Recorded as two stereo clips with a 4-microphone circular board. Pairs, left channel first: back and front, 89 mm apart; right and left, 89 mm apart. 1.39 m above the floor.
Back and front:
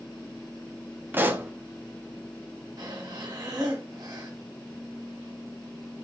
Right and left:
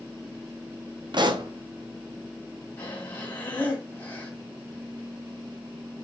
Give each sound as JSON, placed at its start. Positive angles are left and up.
{"t": 1.1, "sound": "a pop", "azimuth_deg": 65, "distance_m": 0.6}
{"t": 2.8, "sound": "breathing", "azimuth_deg": -30, "distance_m": 1.7}